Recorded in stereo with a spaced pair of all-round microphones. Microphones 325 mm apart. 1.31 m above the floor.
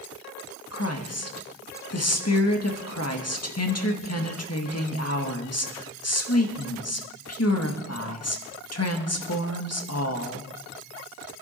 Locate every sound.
0.7 s a woman speaking: 50° left (ahead or behind), 1.8 m